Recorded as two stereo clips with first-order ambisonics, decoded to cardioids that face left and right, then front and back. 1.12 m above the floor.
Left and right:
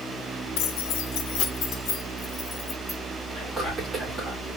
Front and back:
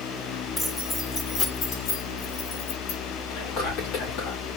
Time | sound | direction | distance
0.6 | keys jangling | 80° left | 1.1 m
3.3 | whispering | 5° right | 2.5 m